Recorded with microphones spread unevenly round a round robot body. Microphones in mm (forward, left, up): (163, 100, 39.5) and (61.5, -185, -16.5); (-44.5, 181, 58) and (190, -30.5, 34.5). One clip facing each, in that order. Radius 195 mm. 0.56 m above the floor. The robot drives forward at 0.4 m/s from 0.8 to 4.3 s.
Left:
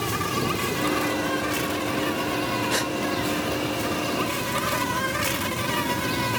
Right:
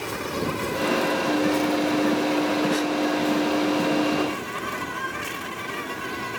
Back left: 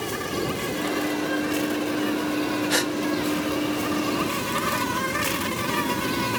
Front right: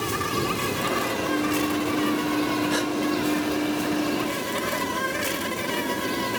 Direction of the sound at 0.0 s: 25° left.